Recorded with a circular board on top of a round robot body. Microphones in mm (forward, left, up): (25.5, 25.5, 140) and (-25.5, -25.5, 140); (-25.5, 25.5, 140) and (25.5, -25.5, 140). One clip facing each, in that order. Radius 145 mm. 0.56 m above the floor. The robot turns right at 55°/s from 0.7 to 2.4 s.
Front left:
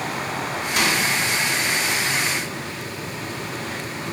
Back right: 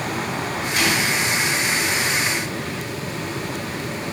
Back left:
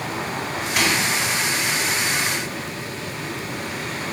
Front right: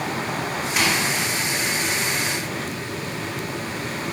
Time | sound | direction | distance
0.8 | a microwave | 40° left | 2.5 m